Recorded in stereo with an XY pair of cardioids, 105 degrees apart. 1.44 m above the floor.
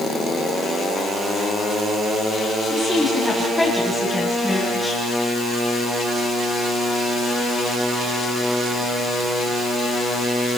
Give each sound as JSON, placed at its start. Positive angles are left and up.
{"t": 2.7, "sound": "a woman speaking", "azimuth_deg": 10, "distance_m": 10.0}